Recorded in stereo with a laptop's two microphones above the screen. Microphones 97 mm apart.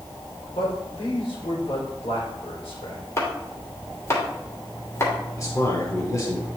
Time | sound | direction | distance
0.5 | a man speaking | 75° left (ahead or behind) | 4 m
3.2 | chopping | 30° left (ahead or behind) | 2.5 m
5.4 | a man speaking | 35° left (ahead or behind) | 3.5 m